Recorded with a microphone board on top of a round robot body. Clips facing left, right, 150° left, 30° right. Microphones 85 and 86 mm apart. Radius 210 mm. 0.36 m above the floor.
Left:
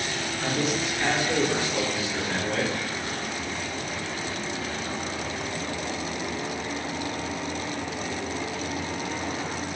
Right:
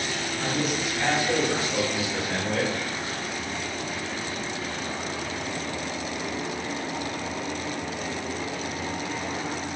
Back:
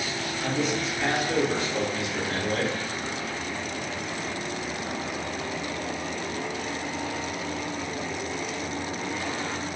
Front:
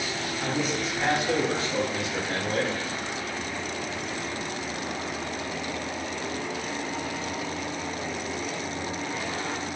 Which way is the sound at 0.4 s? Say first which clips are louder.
Left 1 dB, back 1 dB; 55° right.